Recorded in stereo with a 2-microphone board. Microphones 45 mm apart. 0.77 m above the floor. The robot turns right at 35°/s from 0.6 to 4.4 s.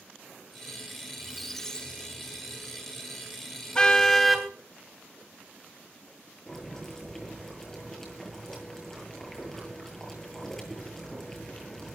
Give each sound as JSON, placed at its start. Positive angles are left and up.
{"t": 1.2, "sound": "a squeak", "azimuth_deg": -5, "distance_m": 1.3}
{"t": 3.8, "sound": "a car horn", "side_deg": 20, "distance_m": 2.5}
{"t": 6.5, "sound": "boiling", "side_deg": 5, "distance_m": 9.5}